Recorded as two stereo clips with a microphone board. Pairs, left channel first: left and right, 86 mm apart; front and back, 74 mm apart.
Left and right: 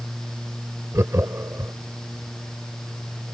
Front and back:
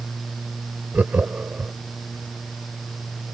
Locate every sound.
0.9 s laughter: 125° right